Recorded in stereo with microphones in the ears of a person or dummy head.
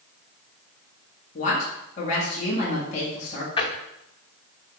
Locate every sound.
1.4 s a woman speaking: 40° left (ahead or behind), 1.7 m
3.6 s a drawer: 30° left (ahead or behind), 1.0 m